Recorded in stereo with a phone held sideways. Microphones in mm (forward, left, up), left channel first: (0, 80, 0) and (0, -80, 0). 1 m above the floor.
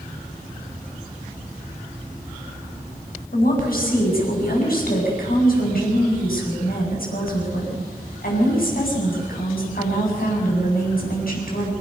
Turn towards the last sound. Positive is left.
turn(degrees=65)  # may be behind; listen again after turning